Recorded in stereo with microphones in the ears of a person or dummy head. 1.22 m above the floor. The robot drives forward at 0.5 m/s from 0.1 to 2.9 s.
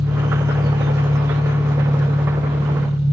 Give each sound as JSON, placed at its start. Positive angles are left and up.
{"t": 0.0, "sound": "an engine running", "side_deg": -80, "distance_m": 2.0}